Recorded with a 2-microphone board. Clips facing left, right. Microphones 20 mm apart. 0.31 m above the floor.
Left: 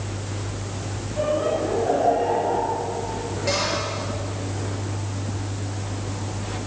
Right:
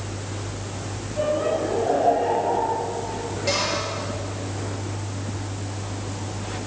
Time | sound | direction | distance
1.2 | laughter | 5° right (ahead or behind) | 6.5 m
3.5 | a cupboard door | 5° right (ahead or behind) | 7.5 m